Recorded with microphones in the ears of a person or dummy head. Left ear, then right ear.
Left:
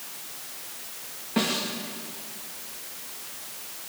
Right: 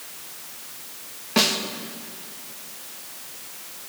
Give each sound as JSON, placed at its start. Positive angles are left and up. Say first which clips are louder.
{"t": 1.4, "sound": "a snare drum", "louder": "right 6 dB", "side_deg": -45, "distance_m": 2.0}